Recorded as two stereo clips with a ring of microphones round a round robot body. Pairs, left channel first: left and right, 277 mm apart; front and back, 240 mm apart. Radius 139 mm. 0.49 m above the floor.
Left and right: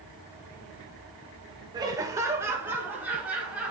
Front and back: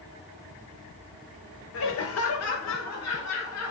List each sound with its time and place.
1.7 s laughter: 15° right, 1.3 m; by 3.7 s 5° right, 3 m